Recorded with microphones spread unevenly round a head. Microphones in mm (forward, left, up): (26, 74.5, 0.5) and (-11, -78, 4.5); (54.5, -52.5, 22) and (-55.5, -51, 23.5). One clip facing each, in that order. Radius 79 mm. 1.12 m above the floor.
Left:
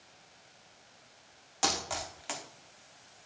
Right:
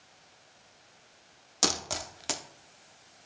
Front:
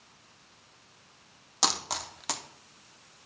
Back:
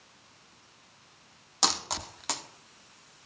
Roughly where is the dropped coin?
Right.